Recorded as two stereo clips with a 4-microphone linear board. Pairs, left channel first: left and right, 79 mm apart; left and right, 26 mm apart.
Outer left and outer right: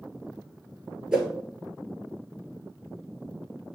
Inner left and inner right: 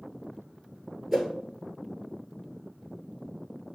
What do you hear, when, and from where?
1.1 s a whoosh: 10° right (ahead or behind), 1.6 m